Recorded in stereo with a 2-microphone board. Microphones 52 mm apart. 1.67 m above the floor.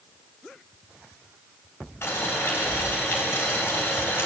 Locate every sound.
2.0 s boiling: 50° left (ahead or behind), 3 m